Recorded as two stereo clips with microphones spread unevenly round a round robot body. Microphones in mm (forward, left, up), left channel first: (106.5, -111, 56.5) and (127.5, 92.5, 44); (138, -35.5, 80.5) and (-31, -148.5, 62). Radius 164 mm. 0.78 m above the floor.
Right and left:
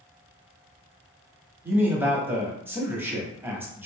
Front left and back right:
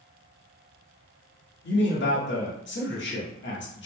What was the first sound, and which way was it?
A man speaking, 5° left.